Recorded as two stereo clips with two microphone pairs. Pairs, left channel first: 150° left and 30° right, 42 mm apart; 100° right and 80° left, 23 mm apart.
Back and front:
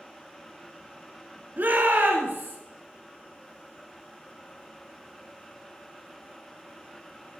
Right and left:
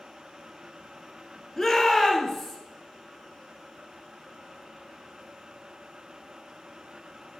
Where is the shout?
20° right, 2.5 m; by 2.6 s 15° right, 3 m.